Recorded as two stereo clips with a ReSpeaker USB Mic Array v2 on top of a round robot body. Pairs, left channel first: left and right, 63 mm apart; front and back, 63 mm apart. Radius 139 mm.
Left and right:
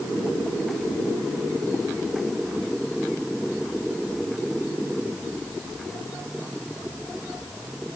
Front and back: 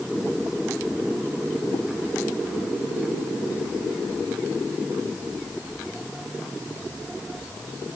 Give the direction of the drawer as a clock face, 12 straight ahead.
I don't hear a drawer.